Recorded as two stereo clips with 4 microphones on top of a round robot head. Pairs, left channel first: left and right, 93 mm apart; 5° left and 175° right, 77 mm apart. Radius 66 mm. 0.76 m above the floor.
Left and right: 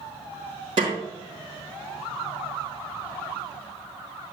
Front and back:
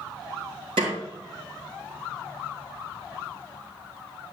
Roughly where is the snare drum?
Behind right.